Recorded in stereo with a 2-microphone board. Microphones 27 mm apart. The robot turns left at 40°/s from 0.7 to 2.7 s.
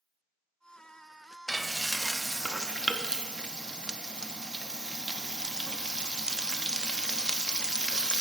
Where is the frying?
20° left, 0.5 m; by 8.2 s 30° right, 0.5 m.